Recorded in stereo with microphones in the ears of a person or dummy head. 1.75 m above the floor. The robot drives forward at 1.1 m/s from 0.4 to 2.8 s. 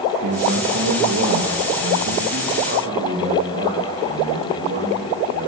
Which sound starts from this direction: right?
A man speaking, at 0.2 s.